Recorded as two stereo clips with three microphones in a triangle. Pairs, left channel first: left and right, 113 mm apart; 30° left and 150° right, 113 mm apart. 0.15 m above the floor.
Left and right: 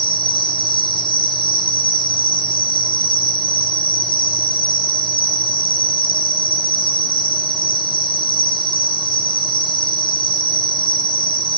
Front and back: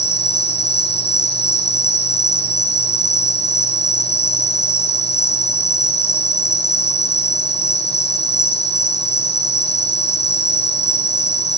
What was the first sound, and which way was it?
An insect, 50° left.